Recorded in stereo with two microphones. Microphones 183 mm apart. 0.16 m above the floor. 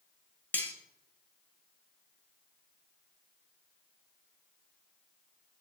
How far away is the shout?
No shout in this recording.